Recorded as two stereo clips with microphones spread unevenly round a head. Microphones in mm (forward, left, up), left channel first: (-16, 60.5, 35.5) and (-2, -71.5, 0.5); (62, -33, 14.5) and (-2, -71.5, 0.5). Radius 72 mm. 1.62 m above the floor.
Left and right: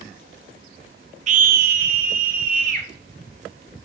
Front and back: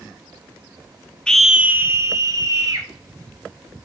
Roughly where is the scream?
Ahead right.